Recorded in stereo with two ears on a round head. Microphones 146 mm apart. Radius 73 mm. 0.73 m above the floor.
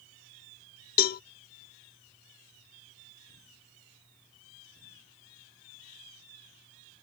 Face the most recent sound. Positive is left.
turn(degrees=60)  # may be behind; listen again after turning